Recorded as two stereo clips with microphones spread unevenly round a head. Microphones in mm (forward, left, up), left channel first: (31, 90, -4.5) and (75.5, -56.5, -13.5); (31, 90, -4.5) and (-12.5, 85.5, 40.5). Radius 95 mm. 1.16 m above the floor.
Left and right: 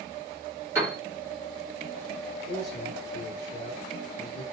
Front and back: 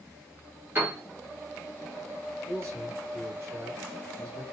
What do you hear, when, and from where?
0.8 s a piano: 150° right, 1.3 m
2.5 s a man speaking: 140° left, 2 m